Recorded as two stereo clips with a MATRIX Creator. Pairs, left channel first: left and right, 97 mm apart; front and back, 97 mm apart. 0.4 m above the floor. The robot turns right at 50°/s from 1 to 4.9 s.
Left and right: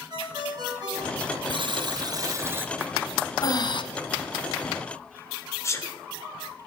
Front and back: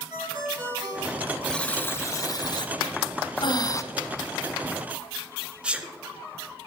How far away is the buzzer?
About 0.8 m.